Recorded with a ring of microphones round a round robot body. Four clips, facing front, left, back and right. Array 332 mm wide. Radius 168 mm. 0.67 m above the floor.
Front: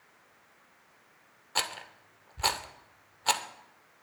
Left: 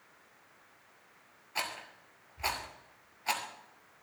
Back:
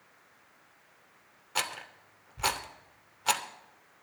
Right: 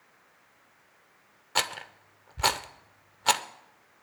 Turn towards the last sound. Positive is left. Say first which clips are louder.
# right 7 dB, even
turn(degrees=-85)